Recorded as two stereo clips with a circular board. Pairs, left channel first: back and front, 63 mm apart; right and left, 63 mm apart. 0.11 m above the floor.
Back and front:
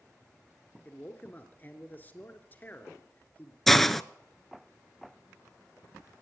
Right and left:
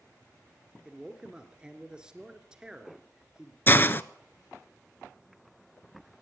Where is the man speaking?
150° left, 1.5 m.